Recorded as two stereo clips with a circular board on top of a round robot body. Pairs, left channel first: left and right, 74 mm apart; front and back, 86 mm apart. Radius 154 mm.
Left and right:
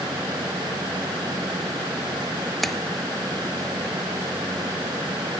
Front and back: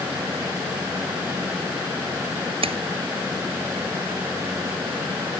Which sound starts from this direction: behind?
A splash, at 2.6 s.